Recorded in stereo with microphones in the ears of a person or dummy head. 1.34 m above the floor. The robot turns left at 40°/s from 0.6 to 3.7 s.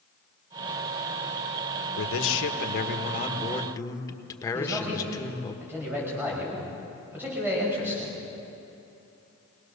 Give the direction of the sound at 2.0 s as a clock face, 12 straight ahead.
9 o'clock.